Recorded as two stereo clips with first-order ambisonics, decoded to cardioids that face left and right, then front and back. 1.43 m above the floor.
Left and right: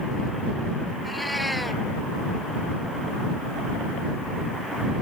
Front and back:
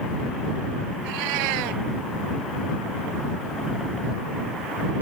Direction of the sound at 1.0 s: 175° left.